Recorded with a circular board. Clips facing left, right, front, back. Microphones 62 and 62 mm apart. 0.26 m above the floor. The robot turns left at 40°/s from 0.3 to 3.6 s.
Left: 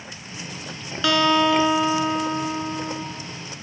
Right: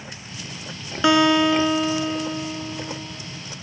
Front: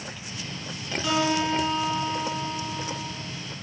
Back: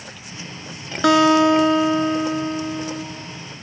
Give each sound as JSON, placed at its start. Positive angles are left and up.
{"t": 1.0, "sound": "a guitar", "azimuth_deg": -160, "distance_m": 2.0}